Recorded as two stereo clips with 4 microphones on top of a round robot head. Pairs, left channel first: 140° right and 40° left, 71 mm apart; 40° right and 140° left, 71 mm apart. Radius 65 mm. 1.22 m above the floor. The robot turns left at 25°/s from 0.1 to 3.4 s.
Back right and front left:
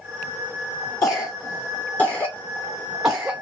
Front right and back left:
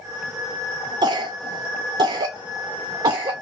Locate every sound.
1.0 s a cough: 175° left, 0.5 m; by 3.4 s 115° left, 0.5 m